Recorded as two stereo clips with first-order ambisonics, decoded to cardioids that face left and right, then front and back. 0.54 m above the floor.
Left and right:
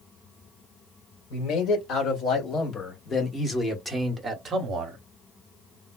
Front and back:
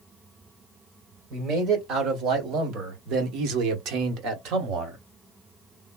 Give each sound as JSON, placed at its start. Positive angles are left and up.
{"t": 1.3, "sound": "a man speaking", "azimuth_deg": 130, "distance_m": 1.9}